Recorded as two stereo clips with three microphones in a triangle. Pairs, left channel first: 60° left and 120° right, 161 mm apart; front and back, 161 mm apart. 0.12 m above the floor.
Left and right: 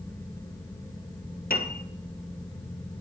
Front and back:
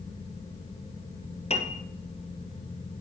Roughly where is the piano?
Ahead left.